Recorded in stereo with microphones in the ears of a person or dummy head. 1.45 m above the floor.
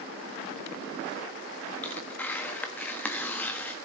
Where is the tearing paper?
15° left (ahead or behind), 1.4 m.